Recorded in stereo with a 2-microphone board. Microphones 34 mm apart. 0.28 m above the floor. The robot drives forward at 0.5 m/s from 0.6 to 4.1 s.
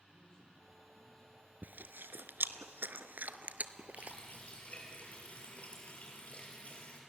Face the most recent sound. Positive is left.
turn(degrees=40)  # may be behind; listen again after turning